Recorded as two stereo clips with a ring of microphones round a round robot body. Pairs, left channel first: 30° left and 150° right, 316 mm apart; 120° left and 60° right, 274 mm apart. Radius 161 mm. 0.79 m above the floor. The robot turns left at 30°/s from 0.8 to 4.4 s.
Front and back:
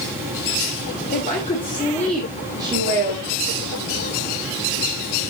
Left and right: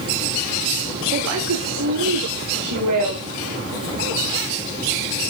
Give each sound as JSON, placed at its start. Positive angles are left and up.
{"t": 1.1, "sound": "a woman speaking", "azimuth_deg": -30, "distance_m": 1.4}